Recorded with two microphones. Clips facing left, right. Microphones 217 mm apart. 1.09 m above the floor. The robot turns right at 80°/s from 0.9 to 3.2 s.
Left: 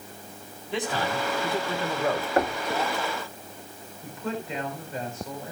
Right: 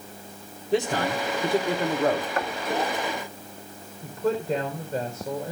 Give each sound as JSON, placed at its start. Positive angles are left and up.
{"t": 0.7, "sound": "a man speaking", "azimuth_deg": -135, "distance_m": 3.0}
{"t": 2.4, "sound": "knocking", "side_deg": 40, "distance_m": 1.3}
{"t": 4.0, "sound": "a woman speaking", "side_deg": -40, "distance_m": 4.5}